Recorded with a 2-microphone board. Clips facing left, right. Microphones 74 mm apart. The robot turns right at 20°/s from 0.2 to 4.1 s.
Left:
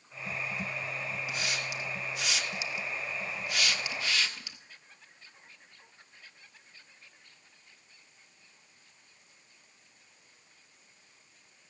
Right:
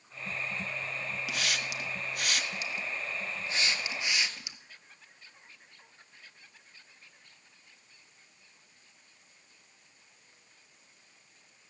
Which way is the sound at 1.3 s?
75° right (ahead or behind).